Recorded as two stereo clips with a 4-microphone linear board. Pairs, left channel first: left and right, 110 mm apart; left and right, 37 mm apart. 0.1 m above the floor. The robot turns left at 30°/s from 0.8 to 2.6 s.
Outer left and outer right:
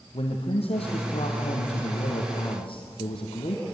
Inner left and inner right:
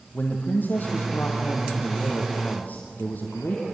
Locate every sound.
0.1 s a man speaking: 110° left, 3.5 m; by 3.6 s 60° left, 3.5 m